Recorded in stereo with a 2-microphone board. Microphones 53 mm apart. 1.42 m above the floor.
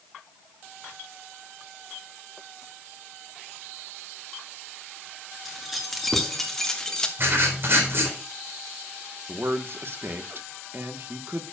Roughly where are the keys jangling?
Centre.